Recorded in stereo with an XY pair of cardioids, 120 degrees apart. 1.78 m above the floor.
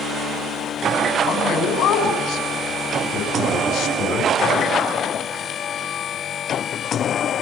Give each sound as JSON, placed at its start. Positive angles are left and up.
{"t": 1.2, "sound": "a man speaking", "azimuth_deg": 70, "distance_m": 6.5}